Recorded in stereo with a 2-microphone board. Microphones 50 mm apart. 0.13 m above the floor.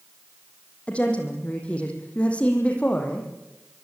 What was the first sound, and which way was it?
A woman speaking, 20° left (ahead or behind).